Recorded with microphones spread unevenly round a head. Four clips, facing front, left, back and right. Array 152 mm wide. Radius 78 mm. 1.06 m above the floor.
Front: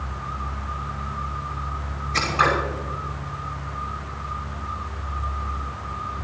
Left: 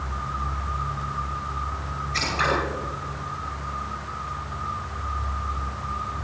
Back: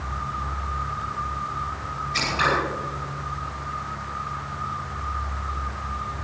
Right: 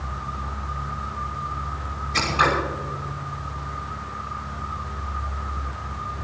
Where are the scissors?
45° right, 6 m.